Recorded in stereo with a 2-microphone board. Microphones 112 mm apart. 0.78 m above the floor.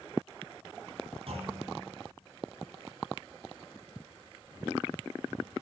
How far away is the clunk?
About 3 m.